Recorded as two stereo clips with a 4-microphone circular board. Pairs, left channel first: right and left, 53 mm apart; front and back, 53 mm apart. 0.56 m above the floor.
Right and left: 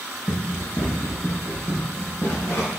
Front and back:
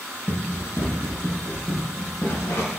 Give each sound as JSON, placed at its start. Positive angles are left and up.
{"t": 0.3, "sound": "running footsteps", "azimuth_deg": -30, "distance_m": 5.0}